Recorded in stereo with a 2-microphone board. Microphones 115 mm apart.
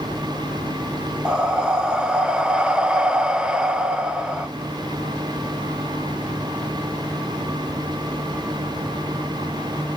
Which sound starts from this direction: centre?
Breathing, at 1.2 s.